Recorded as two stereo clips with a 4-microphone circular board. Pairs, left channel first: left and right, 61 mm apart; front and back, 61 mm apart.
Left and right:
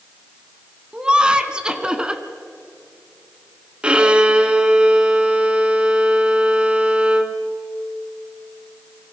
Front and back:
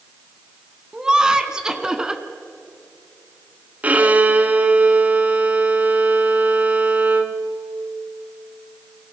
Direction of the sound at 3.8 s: 140° right.